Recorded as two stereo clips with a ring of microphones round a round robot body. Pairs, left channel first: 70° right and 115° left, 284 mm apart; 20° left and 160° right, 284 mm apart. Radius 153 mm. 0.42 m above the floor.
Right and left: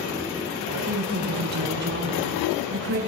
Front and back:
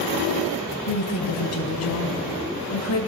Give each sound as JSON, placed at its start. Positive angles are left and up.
{"t": 0.9, "sound": "a woman speaking", "azimuth_deg": 50, "distance_m": 2.5}